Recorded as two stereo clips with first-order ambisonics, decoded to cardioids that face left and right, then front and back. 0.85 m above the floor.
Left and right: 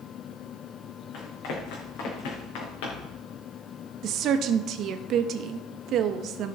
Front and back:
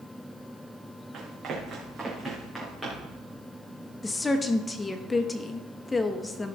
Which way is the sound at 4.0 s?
75° right.